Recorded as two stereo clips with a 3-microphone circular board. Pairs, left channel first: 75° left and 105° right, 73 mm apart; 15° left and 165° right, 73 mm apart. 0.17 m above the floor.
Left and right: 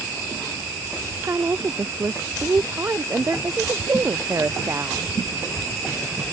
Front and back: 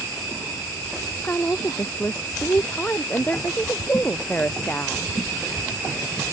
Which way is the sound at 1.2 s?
50° right.